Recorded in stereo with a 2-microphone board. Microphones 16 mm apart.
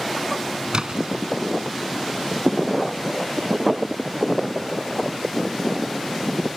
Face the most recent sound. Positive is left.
turn(degrees=-45)  # may be behind; listen again after turning